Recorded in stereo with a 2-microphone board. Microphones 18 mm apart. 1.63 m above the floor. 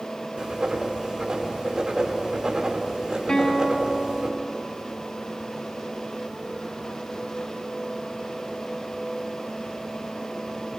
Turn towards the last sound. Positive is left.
turn(degrees=50)  # may be behind; listen again after turning